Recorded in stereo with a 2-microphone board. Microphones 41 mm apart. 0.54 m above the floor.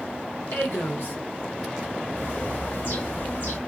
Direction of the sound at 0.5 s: 65° left (ahead or behind).